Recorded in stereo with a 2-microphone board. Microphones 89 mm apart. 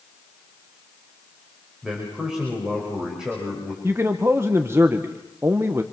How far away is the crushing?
No crushing in this recording.